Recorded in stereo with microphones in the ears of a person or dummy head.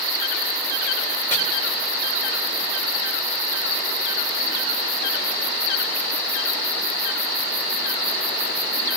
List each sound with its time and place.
1.3 s chopping: 15° left (ahead or behind), 3.5 m